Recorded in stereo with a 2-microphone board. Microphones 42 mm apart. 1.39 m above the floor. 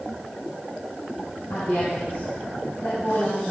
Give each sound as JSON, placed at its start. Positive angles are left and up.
{"t": 1.5, "sound": "a woman speaking", "side_deg": 75, "distance_m": 5.0}